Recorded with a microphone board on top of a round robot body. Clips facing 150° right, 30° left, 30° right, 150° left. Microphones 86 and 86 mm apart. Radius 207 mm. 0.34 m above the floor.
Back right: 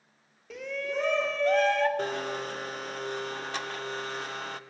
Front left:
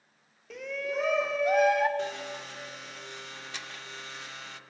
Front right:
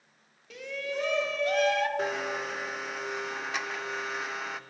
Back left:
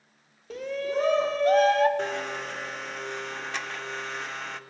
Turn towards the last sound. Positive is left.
turn(degrees=-115)